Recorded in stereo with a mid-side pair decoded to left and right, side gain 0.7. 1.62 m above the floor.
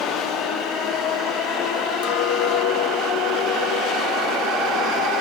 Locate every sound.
2.0 s a clink: 70° left, 1.5 m